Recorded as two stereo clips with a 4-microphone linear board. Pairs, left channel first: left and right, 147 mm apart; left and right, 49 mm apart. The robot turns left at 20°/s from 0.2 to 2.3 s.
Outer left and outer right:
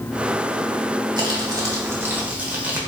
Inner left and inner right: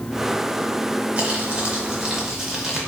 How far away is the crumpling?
About 1.8 m.